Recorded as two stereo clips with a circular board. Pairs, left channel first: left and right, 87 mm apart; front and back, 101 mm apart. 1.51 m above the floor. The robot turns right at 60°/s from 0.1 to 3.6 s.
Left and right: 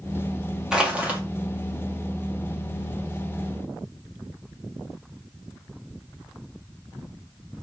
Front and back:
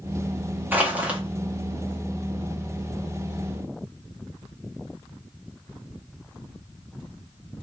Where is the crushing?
150° right, 0.9 m; by 1.2 s 120° right, 0.9 m.